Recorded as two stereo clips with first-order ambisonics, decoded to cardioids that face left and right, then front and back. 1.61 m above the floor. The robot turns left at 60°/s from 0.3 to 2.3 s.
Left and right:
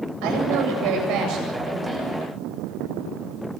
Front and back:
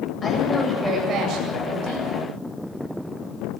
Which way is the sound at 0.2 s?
70° right.